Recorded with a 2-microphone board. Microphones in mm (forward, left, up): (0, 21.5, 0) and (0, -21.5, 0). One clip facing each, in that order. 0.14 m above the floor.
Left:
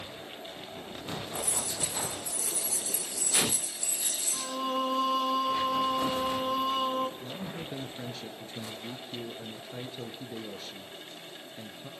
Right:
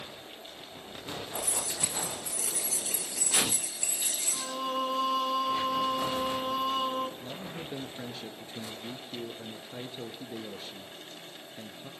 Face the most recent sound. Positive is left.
turn(degrees=-20)  # may be behind; listen again after turning